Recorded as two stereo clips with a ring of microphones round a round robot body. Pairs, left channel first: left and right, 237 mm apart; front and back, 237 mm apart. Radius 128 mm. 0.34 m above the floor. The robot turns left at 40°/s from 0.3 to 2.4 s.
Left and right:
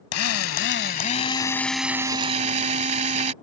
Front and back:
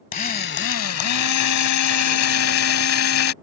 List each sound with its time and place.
0.1 s a drill: 60° left; by 3.3 s 25° right